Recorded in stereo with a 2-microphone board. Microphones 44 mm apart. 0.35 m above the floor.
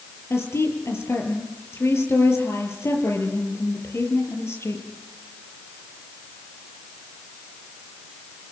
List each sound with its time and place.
0.3 s a woman speaking: 80° left, 6.5 m